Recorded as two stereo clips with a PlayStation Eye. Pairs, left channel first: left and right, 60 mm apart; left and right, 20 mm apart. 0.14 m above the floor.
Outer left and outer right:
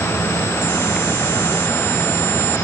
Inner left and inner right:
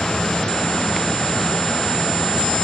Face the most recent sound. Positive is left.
No sound to turn to.